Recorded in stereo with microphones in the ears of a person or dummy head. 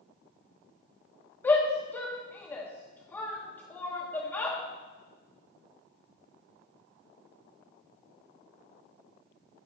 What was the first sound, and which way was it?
A shout, 15° left (ahead or behind).